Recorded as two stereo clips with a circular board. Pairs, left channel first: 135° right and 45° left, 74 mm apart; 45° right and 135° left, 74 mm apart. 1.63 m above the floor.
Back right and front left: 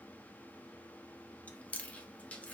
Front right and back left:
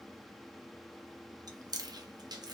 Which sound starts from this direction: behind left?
Chewing, at 1.5 s.